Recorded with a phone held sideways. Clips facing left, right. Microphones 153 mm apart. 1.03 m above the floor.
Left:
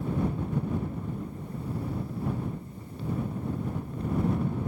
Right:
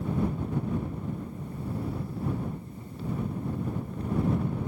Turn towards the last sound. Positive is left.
No sound to turn to.